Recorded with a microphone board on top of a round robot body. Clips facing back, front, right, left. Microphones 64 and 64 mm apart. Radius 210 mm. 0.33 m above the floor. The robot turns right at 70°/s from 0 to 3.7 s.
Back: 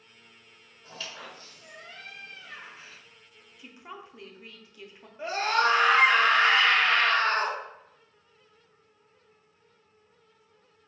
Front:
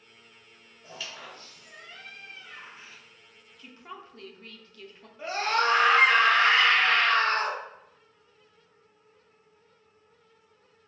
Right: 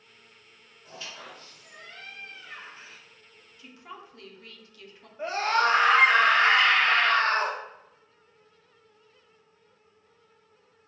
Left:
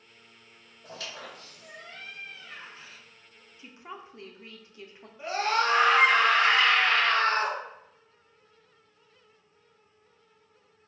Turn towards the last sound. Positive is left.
turn(degrees=-115)